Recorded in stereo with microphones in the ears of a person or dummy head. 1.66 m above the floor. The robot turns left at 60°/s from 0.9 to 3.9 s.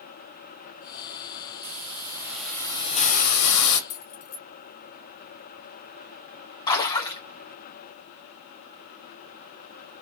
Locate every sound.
1.6 s a hiss: 135° right, 2 m; by 3.8 s 95° left, 2 m
3.9 s keys jangling: 60° left (ahead or behind), 1.6 m
6.7 s a splash: 20° left (ahead or behind), 2 m